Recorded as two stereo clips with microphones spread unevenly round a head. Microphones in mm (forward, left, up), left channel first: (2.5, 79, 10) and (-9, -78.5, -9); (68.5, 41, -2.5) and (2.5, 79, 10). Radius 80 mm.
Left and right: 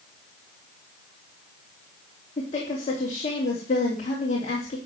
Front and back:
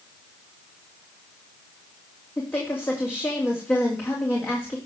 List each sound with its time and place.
2.4 s a woman speaking: 35° left, 3 m